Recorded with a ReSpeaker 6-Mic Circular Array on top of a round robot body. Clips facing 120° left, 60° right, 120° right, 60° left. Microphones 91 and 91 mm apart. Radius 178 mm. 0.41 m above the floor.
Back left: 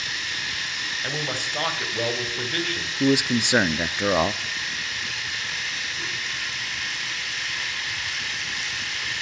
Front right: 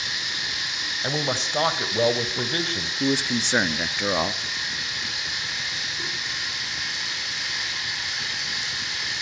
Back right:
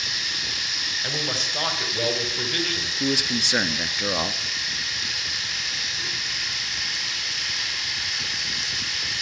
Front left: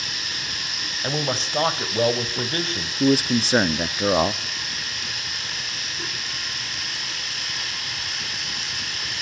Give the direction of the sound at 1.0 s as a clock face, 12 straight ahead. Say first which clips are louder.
Front right 5 dB, front left 6 dB; 12 o'clock.